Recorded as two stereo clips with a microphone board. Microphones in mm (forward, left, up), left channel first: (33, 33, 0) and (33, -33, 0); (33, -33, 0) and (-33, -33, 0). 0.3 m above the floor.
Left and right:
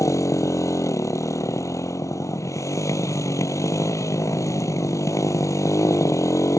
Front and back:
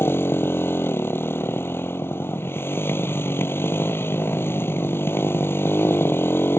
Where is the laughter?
No laughter in this recording.